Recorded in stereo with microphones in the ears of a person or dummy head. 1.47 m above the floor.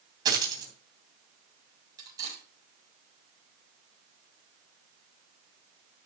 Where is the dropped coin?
25° right (ahead or behind), 3 m.